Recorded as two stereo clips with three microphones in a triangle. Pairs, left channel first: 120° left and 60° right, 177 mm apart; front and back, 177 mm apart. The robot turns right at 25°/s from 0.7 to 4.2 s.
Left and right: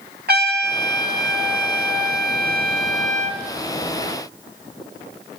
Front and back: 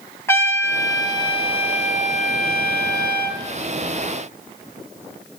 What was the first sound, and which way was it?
A trumpet, 75° right.